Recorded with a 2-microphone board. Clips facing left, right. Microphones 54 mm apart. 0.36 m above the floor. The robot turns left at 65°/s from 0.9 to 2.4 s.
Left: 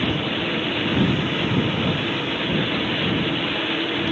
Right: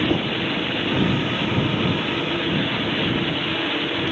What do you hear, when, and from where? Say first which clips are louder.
0.1 s knocking: right 3 dB; 70° right (ahead or behind)